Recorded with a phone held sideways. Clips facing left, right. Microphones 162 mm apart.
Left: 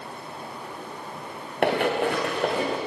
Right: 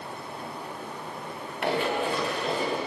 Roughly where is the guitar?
I don't hear a guitar.